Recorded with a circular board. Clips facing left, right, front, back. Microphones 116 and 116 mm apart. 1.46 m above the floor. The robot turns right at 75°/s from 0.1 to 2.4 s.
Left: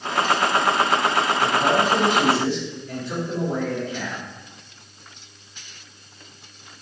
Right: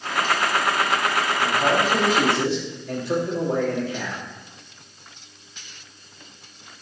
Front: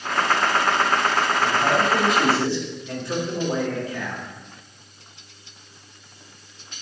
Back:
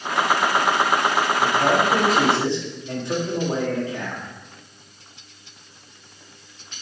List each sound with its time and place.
1.4 s a man speaking: 170° left, 2.5 m; by 4.2 s 110° right, 2.5 m